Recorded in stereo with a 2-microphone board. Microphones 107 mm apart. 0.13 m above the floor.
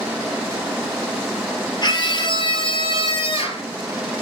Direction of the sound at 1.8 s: 45° left (ahead or behind).